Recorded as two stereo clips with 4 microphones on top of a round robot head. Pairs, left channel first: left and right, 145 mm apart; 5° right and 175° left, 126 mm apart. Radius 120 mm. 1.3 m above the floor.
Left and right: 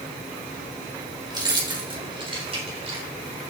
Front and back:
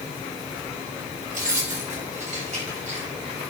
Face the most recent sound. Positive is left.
turn(degrees=-135)